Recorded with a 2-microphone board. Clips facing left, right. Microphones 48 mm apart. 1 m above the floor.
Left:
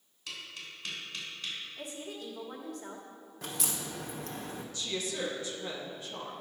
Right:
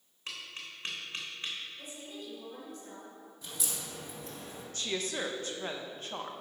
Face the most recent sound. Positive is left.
turn(degrees=-50)  # may be behind; listen again after turning